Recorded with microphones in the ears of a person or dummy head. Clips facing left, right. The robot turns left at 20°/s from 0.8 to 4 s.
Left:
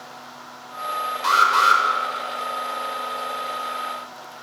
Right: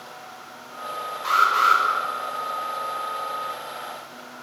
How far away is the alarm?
About 6.5 m.